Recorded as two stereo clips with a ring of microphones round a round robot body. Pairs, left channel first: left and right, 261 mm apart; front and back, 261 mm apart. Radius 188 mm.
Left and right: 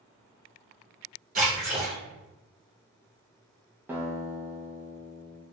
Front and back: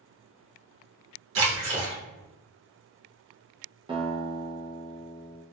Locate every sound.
1.4 s a splash: 145° right, 0.9 m
3.9 s a guitar: 160° right, 0.6 m